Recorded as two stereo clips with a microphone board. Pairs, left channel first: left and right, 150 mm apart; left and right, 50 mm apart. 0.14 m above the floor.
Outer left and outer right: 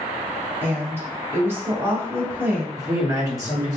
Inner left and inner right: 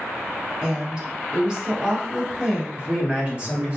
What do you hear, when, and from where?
0.6 s a woman speaking: 15° right (ahead or behind), 1.0 m
2.8 s a man speaking: 25° right (ahead or behind), 1.7 m